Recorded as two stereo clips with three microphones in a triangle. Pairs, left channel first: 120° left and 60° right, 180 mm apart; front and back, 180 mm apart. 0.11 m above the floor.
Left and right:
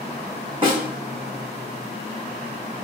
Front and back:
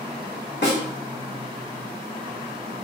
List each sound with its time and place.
0.6 s a snare drum: straight ahead, 1.6 m